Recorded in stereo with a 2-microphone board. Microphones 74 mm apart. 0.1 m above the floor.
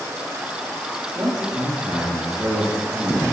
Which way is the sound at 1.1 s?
60° right (ahead or behind).